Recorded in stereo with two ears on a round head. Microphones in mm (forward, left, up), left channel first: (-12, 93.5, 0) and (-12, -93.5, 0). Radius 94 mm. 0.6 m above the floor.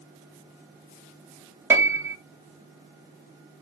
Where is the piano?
10° right (ahead or behind), 0.7 m.